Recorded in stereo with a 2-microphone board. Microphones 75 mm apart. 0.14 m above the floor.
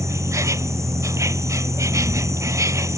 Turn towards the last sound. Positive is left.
turn(degrees=-45)  # may be behind; listen again after turning